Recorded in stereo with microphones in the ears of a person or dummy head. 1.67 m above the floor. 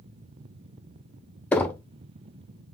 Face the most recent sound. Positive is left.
turn(degrees=10)  # may be behind; listen again after turning